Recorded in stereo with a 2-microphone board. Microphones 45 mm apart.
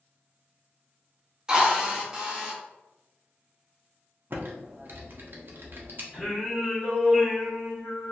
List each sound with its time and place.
1.5 s a drill: 20° right (ahead or behind), 0.7 m
4.3 s typing on a keyboard: 50° right (ahead or behind), 0.6 m
6.1 s singing: centre (ahead or behind), 1.5 m